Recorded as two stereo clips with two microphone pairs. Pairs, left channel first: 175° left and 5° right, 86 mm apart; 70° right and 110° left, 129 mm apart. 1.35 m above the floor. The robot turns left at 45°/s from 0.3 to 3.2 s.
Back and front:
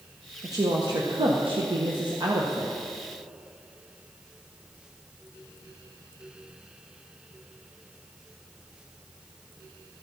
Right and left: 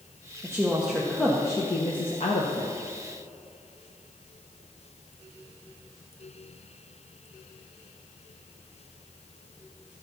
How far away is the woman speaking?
About 1.3 m.